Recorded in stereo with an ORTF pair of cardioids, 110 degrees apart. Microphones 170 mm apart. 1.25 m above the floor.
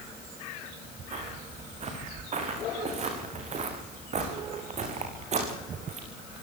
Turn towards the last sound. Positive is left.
turn(degrees=-40)